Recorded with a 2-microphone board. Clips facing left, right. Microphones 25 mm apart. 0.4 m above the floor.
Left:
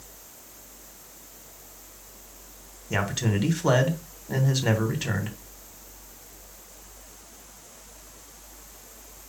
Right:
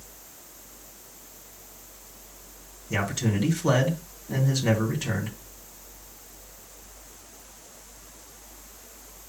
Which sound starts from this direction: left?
A man speaking, at 2.9 s.